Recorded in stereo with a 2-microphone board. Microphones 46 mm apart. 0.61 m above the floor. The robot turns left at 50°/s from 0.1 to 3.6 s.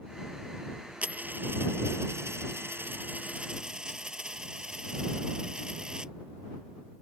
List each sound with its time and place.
1.0 s a dropped coin: 30° right; by 6.1 s 160° right